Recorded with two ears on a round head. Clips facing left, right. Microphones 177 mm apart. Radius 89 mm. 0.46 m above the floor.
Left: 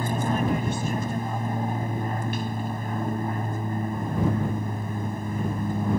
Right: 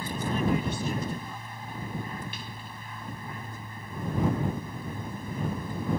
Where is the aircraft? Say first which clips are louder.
Left 4 dB; 40° left (ahead or behind).